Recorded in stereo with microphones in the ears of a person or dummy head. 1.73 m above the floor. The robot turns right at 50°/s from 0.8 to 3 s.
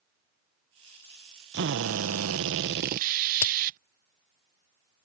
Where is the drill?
120° right; by 3.8 s 45° right.